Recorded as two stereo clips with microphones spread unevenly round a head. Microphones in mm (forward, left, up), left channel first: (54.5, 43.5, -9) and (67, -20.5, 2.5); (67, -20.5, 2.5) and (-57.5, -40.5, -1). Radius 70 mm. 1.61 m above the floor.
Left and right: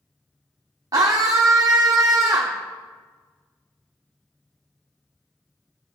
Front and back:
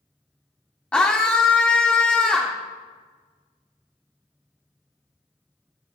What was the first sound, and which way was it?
A scream, 70° right.